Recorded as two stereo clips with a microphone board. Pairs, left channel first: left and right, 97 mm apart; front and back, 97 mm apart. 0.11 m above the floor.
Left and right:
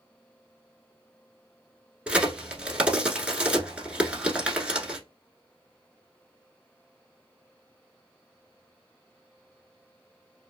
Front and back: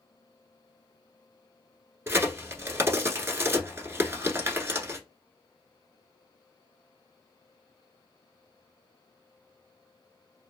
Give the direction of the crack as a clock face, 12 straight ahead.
5 o'clock.